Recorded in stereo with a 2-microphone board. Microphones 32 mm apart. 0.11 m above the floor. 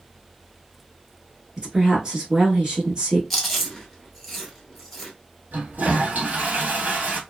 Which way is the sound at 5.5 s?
55° right (ahead or behind).